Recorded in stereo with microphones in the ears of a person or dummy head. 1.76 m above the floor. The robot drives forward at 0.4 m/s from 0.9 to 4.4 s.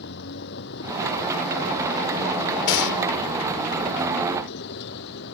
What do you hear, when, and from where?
0.0 s a vehicle: 65° left (ahead or behind)
2.7 s a gunshot: 75° left (ahead or behind)